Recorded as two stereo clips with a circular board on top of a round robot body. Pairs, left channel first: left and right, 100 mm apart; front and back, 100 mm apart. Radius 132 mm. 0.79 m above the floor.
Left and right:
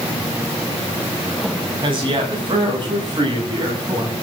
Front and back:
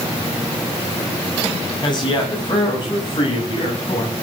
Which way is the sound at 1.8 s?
50° right.